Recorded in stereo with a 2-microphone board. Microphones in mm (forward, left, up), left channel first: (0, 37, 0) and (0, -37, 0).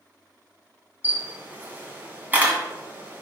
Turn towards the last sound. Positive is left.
turn(degrees=-25)  # may be behind; listen again after turning